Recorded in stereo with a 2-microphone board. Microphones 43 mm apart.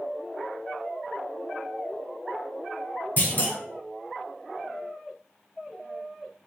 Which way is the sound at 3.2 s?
45° left (ahead or behind).